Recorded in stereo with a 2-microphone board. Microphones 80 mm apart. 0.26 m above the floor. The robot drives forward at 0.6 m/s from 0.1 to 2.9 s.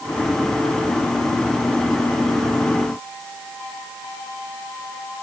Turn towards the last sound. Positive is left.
No sound to turn to.